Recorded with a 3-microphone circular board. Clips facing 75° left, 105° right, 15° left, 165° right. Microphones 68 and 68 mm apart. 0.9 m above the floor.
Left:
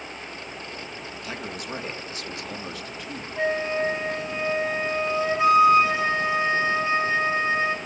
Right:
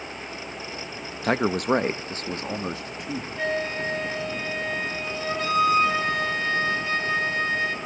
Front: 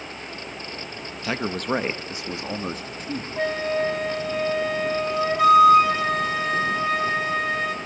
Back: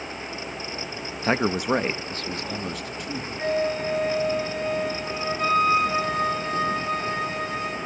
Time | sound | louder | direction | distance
1.2 | a man speaking | right 14 dB, back 4 dB | 115° right | 1.0 m
3.4 | a flute | left 4 dB, front 1 dB | 5° left | 4 m